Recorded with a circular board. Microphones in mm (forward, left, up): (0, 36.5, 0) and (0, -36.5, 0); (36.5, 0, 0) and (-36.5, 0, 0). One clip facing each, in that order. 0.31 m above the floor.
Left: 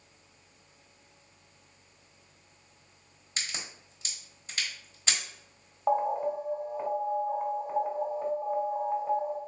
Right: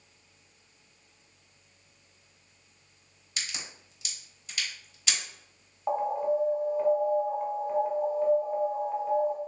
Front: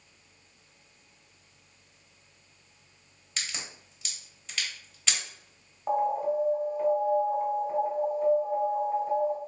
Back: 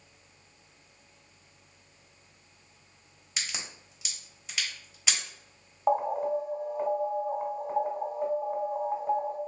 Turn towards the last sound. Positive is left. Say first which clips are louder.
# even, even
turn(degrees=145)